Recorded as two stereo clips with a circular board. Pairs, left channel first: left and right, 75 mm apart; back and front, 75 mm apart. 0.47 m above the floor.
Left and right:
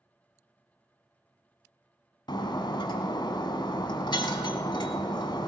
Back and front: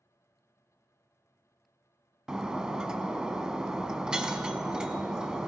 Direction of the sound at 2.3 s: 80° left.